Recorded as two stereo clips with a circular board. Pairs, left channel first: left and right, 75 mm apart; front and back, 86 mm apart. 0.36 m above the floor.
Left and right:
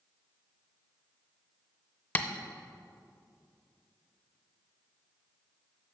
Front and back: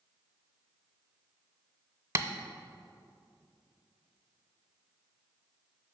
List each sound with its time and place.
2.1 s tapping: 145° left, 0.5 m